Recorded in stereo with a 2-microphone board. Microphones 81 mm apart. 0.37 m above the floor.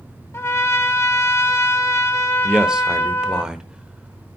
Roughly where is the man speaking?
Centre.